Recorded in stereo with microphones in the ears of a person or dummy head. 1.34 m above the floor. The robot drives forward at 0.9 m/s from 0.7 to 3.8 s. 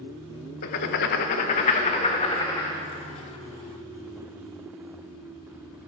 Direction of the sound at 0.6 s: 55° left (ahead or behind).